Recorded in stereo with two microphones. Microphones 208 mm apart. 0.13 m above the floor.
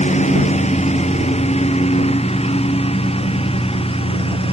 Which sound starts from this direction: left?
A lawn mower, at 0.0 s.